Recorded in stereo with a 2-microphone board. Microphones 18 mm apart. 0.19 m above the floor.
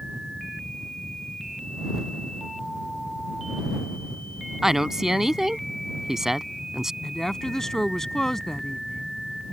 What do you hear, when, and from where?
4.6 s a woman speaking: 25° right (ahead or behind)
7.0 s a woman speaking: 25° left (ahead or behind)